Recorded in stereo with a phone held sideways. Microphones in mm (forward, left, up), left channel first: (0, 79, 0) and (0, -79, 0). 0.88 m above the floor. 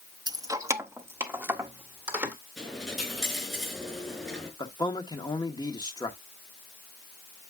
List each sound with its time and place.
0.3 s keys jangling: 25° right (ahead or behind), 0.5 m; by 2.4 s 10° right (ahead or behind), 2 m
2.6 s a dropped coin: centre (ahead or behind), 4.5 m
4.6 s a man speaking: 25° left (ahead or behind), 1.5 m